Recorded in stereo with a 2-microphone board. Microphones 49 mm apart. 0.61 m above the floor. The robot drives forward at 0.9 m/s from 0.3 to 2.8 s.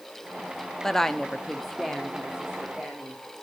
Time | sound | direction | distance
0.8 | a woman speaking | 10° left (ahead or behind) | 0.6 m